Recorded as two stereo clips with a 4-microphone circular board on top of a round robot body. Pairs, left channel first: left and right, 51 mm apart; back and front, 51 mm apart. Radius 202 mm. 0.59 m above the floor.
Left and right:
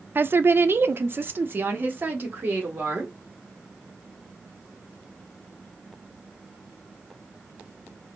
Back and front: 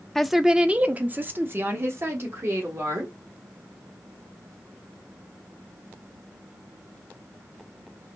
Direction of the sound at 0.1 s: 100° right.